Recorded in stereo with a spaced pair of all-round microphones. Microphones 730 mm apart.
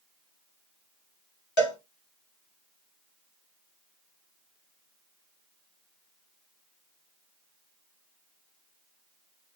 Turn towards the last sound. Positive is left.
turn(degrees=40)  # may be behind; listen again after turning